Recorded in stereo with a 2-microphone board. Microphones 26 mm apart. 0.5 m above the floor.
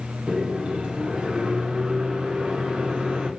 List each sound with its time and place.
0.3 s a microwave: 40° right (ahead or behind), 1.0 m